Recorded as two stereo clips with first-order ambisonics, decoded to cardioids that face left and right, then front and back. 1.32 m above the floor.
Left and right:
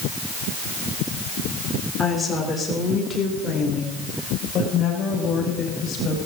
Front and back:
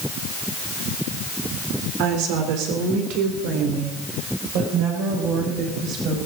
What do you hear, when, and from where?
2.0 s a woman speaking: 175° left, 3.5 m; by 6.2 s 145° left, 6 m